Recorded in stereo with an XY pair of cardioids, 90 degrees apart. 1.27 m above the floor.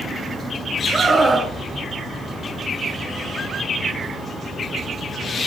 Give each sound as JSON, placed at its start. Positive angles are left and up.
{"t": 0.9, "sound": "a scream", "azimuth_deg": -30, "distance_m": 8.5}